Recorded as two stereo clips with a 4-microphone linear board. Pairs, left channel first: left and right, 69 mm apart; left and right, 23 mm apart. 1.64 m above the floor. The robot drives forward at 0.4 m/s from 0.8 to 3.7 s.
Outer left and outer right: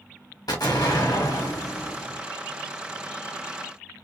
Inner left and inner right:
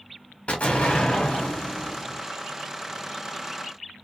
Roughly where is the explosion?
Left.